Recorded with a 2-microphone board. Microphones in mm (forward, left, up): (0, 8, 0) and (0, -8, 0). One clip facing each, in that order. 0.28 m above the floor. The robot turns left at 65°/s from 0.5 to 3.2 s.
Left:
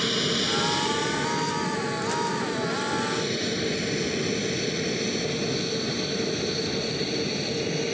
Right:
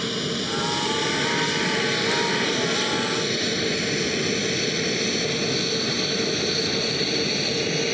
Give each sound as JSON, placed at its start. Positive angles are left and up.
{"t": 0.0, "sound": "an aircraft", "side_deg": 10}